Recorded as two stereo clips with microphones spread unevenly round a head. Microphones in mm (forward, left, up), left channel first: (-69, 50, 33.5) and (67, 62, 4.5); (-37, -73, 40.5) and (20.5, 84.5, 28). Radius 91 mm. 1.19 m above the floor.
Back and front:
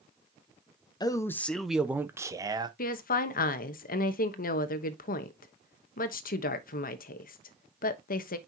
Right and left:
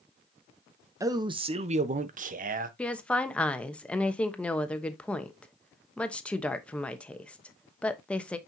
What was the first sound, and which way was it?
A man speaking, 125° left.